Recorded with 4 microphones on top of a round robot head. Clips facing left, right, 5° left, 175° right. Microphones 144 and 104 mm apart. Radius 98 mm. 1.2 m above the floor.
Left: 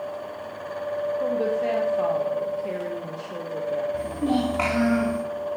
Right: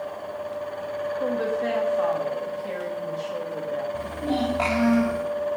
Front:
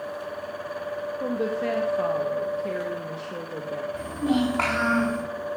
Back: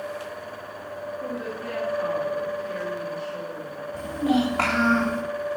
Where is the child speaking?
100° left, 3 m.